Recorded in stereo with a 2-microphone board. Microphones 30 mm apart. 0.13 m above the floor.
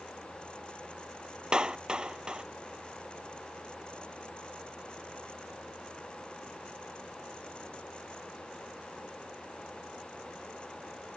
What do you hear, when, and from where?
1.5 s a clap: 30° right (ahead or behind)